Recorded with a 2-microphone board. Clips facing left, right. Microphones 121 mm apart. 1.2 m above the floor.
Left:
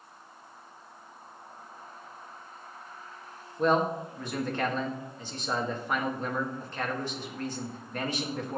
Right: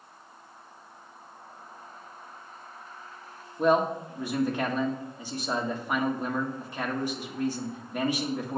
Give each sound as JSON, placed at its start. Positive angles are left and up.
{"t": 3.6, "sound": "a man speaking", "side_deg": -10, "distance_m": 1.6}